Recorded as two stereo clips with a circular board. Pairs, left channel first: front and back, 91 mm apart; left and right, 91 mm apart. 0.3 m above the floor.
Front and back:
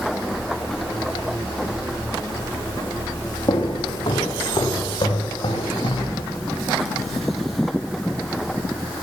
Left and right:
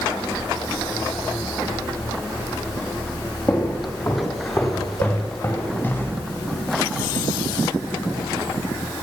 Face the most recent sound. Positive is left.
turn(degrees=25)